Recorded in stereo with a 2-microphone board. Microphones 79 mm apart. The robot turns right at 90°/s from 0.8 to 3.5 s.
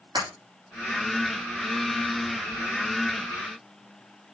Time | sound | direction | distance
0.1 | breaking glass | 80° right | 8.5 m